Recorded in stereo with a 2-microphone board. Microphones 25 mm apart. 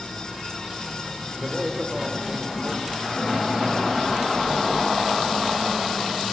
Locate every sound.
1.4 s a man speaking: 30° right (ahead or behind), 5 m; by 4.0 s 20° right (ahead or behind), 6 m